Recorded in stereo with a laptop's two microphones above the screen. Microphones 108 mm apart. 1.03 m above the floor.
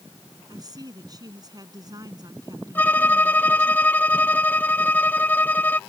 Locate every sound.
0.5 s a woman speaking: 35° right (ahead or behind)
2.8 s a violin: 15° left (ahead or behind)